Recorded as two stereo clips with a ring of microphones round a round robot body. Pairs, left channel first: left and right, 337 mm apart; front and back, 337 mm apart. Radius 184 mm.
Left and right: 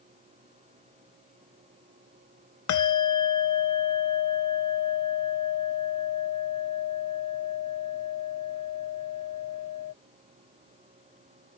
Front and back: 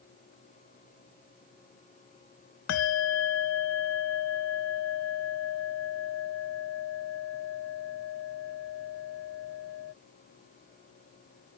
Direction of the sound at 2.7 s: 50° left.